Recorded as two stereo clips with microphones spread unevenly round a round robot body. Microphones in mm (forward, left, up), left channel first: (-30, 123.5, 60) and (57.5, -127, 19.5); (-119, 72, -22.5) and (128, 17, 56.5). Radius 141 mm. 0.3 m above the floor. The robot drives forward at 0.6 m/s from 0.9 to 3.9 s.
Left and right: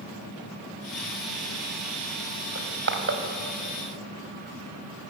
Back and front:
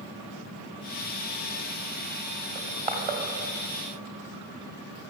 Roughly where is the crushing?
Right.